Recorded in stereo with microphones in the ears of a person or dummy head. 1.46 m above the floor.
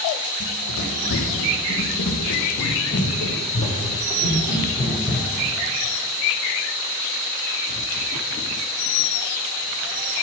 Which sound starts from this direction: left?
Running footsteps, at 0.4 s.